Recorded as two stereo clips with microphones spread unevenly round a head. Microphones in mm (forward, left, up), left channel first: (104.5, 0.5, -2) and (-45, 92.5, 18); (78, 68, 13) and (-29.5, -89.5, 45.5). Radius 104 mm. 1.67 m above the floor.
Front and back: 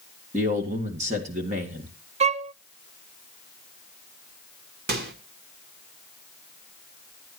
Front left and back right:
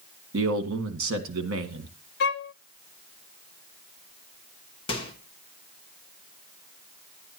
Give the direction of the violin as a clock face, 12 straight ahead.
9 o'clock.